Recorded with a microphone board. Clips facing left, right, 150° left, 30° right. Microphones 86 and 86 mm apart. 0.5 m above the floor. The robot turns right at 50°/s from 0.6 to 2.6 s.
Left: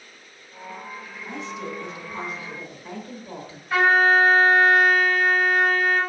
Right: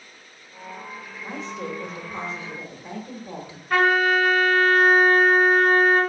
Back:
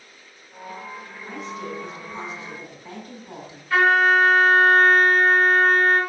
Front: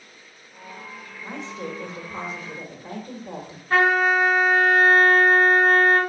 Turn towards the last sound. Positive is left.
turn(degrees=-75)